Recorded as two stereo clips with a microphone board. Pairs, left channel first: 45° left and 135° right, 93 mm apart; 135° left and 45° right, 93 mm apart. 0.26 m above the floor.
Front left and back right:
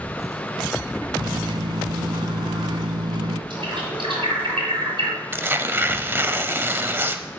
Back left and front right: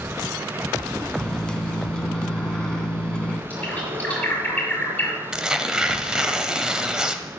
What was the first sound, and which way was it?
A microwave, 145° right.